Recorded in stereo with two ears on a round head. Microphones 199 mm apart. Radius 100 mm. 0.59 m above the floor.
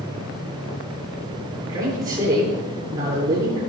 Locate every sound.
1.7 s a man speaking: 20° right (ahead or behind), 9.5 m